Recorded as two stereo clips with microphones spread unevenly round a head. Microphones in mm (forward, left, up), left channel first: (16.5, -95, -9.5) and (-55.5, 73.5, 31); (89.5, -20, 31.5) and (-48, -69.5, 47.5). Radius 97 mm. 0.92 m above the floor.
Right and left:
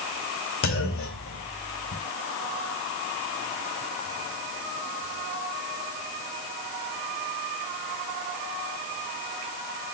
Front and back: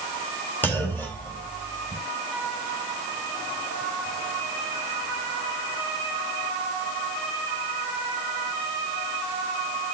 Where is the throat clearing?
No throat clearing in this recording.